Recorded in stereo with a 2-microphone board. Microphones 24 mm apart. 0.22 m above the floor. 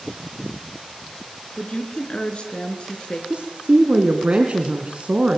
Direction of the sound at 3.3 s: 50° right (ahead or behind).